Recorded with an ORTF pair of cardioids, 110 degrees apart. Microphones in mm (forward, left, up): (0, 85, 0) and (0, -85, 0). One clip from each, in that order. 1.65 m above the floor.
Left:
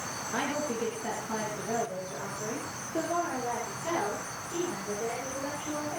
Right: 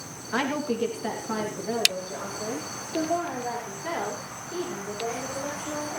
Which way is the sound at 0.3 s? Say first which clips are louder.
Right 5 dB; 45° right.